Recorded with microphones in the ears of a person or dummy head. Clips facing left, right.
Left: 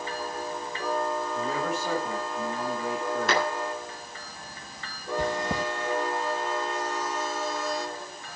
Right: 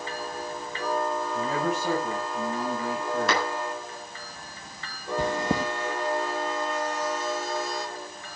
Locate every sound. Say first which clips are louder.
1.3 s a man speaking: right 2 dB; 85° right, 8.5 m; by 3.5 s 80° right, 9.5 m
3.3 s a clap: left 2 dB; 75° right (ahead or behind), 8 m
5.2 s chewing: right 2 dB; 80° right, 1.6 m